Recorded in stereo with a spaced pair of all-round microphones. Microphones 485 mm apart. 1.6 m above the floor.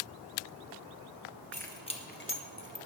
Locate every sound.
1.5 s keys jangling: 5° left (ahead or behind), 1.3 m; by 2.8 s 45° left (ahead or behind), 1.0 m